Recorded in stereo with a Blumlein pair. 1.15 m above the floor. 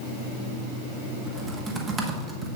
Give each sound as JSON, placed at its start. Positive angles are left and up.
{"t": 1.3, "sound": "typing on a keyboard", "azimuth_deg": -20, "distance_m": 1.1}